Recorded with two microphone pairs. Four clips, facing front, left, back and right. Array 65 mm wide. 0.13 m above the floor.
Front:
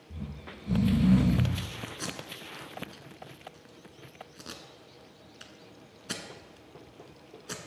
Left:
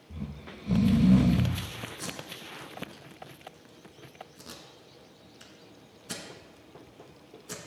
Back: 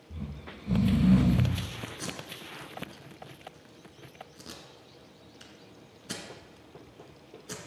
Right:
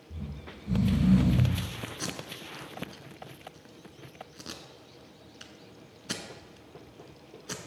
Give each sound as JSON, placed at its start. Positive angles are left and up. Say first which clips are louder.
{"t": 0.1, "sound": "snoring", "louder": "left 2 dB, even", "azimuth_deg": 110, "distance_m": 1.6}
{"t": 2.0, "sound": "tape being pulled", "louder": "right 2 dB, even", "azimuth_deg": -45, "distance_m": 1.1}